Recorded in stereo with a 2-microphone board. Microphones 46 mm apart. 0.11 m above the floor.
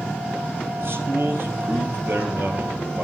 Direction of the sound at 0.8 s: 55° right (ahead or behind).